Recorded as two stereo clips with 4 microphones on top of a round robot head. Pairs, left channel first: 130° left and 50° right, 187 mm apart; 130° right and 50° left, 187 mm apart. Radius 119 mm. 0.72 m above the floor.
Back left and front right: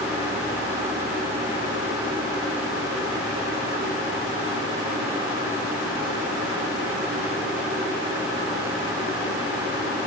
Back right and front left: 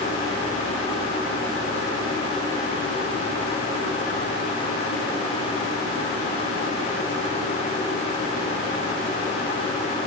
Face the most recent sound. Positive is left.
No sound to turn to.